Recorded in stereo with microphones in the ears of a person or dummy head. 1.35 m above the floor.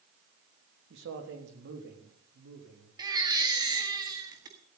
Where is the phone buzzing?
No phone buzzing in this recording.